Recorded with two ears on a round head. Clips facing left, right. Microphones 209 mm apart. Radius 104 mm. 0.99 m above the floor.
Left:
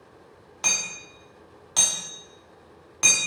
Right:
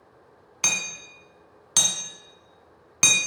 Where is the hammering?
35° right (ahead or behind), 0.8 m.